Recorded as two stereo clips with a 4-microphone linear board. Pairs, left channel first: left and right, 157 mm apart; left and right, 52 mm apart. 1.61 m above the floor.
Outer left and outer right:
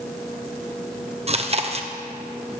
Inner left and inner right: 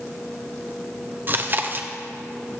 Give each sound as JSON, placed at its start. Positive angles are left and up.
{"t": 1.3, "sound": "chewing", "side_deg": -40, "distance_m": 1.0}